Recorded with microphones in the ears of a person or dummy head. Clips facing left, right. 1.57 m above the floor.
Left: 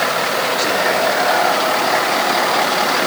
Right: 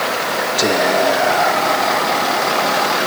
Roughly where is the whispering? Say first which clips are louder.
Right 5 dB; right.